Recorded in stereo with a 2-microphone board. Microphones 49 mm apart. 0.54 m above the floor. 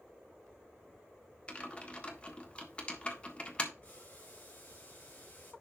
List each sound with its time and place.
1.5 s typing on a keyboard: 25° left (ahead or behind), 1.5 m
3.8 s boiling: 35° left (ahead or behind), 3.5 m